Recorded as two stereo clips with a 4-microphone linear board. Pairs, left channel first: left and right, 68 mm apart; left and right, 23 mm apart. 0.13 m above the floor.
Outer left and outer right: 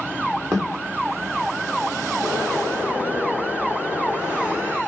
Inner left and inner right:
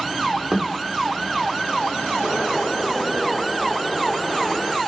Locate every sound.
0.5 s a thud: 40° right (ahead or behind), 1.9 m
2.2 s a bird: 20° right (ahead or behind), 1.6 m